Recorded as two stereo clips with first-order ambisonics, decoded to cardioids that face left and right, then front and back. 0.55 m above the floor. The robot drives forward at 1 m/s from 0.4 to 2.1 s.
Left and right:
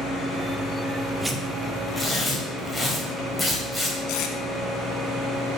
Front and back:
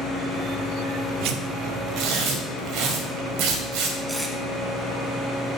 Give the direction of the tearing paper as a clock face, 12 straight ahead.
6 o'clock.